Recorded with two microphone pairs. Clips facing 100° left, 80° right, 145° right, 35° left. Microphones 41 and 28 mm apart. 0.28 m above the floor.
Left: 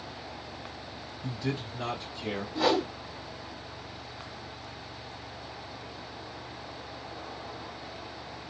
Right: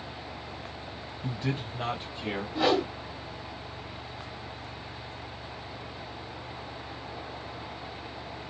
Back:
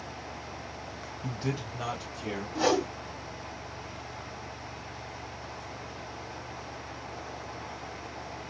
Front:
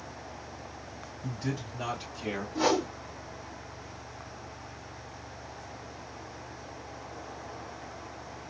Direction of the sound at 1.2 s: 120° right.